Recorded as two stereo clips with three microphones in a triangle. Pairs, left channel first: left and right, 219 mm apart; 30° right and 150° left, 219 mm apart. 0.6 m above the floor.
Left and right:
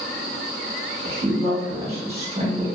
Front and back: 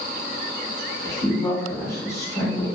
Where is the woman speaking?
90° right, 1.1 m.